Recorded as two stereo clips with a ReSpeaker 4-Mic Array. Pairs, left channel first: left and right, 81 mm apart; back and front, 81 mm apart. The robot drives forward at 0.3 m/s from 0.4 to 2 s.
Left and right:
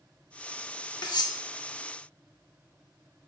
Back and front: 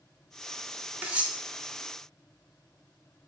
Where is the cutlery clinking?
70° left, 0.5 m; by 1.4 s 80° left, 0.5 m.